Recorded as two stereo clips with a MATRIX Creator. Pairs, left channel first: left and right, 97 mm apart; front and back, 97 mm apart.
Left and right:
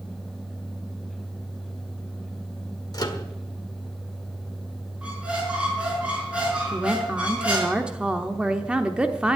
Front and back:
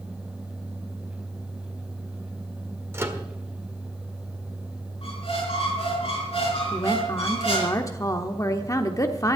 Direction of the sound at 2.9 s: 125° left.